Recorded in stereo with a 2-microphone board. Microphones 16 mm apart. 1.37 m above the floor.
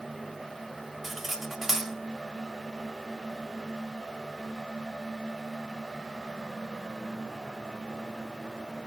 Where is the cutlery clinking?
20° right (ahead or behind), 2.0 m.